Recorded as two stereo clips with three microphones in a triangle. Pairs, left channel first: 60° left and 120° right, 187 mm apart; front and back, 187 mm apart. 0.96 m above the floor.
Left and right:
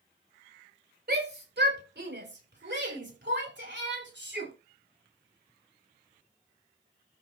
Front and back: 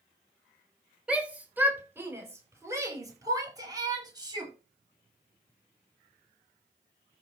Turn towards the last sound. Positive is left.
turn(degrees=-115)